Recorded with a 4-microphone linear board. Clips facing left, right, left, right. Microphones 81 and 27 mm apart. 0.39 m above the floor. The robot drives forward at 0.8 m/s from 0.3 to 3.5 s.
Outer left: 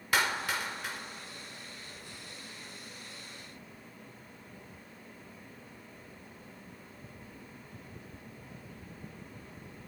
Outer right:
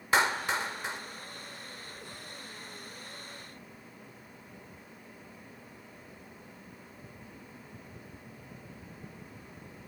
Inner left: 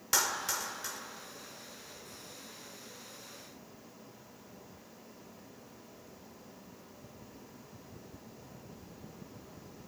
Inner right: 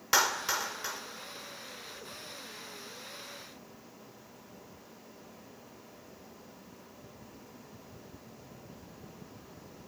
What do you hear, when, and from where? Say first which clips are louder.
0.1 s a clap: outer right 3 dB, inner right 4 dB; 25° right (ahead or behind), 1.2 m